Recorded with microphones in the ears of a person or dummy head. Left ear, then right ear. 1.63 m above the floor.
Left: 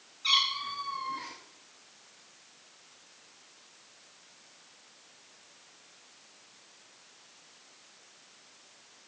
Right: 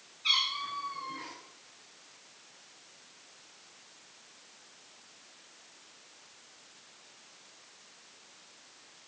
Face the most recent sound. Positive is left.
turn(degrees=30)  # may be behind; listen again after turning